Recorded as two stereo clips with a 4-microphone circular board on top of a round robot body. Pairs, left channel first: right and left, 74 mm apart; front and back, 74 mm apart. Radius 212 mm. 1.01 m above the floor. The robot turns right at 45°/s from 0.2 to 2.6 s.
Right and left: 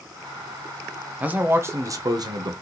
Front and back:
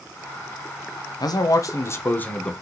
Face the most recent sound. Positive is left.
turn(degrees=80)